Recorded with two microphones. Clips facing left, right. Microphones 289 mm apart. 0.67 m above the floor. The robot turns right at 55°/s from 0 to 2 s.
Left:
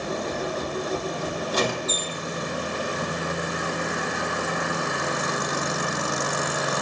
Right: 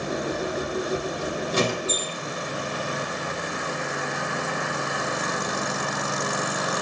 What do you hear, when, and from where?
1.5 s a squeak: 30° right (ahead or behind), 0.8 m; by 2.2 s 10° right (ahead or behind), 0.8 m